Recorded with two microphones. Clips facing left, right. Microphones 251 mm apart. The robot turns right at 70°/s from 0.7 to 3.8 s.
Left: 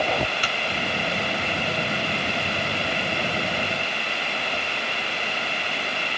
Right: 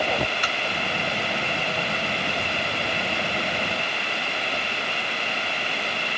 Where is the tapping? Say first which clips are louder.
Even; 35° left (ahead or behind), 0.9 m.